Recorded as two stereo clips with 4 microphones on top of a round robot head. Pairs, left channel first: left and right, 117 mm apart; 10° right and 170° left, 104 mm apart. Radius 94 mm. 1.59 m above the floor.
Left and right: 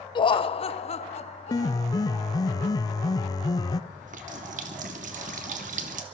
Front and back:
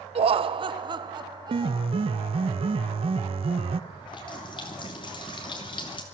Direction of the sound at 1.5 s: 145° left.